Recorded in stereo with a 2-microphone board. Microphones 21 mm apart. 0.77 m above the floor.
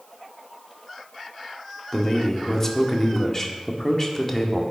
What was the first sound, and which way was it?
A man speaking, 15° left (ahead or behind).